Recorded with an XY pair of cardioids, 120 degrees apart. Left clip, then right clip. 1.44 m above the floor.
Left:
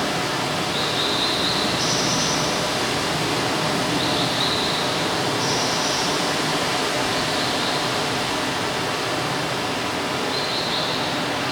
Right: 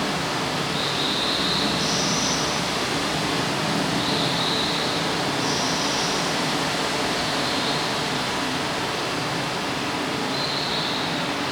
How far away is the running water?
About 3 m.